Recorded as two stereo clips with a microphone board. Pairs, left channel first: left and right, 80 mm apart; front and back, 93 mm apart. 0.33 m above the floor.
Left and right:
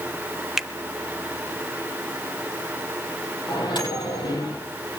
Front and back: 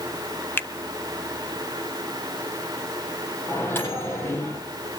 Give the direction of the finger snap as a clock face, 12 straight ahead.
12 o'clock.